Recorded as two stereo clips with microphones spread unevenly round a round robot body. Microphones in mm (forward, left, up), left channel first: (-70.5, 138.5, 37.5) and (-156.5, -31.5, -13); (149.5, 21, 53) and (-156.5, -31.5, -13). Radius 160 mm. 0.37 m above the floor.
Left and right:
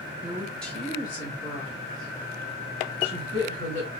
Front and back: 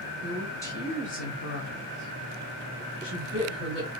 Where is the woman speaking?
120° right, 1.3 m; by 3.9 s 30° left, 2.5 m.